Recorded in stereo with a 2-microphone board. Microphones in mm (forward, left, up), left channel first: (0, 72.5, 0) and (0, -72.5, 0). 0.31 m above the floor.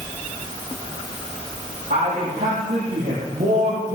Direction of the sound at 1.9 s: 85° right.